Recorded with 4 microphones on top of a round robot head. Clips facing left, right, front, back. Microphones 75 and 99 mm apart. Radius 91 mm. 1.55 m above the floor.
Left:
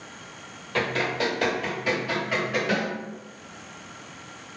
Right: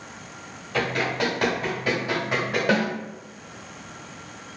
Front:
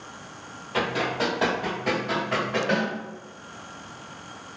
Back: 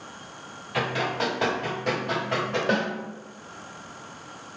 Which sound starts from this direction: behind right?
A snare drum, at 2.7 s.